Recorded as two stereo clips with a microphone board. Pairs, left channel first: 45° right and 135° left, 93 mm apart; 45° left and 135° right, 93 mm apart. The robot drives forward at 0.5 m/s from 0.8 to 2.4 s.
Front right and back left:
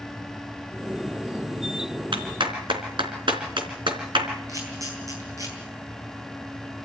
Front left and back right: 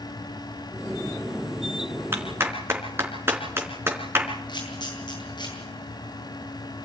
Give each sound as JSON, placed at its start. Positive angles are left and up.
{"t": 2.1, "sound": "a clap", "azimuth_deg": 160, "distance_m": 3.5}
{"t": 4.5, "sound": "a camera shutter", "azimuth_deg": 80, "distance_m": 8.0}